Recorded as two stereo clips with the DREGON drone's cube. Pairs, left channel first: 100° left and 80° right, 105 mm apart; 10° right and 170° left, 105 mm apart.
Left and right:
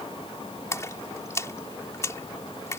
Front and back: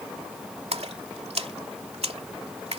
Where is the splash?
160° left.